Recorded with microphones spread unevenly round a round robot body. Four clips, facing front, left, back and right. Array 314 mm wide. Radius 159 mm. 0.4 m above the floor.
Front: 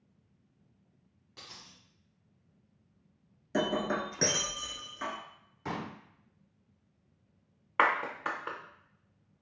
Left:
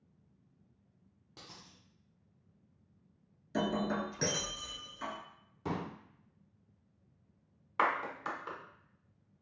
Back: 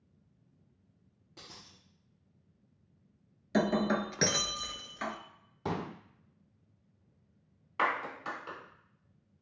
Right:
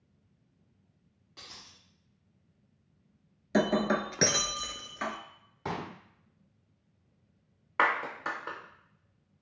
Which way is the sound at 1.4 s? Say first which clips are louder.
Right 1 dB, front 1 dB; 115° left.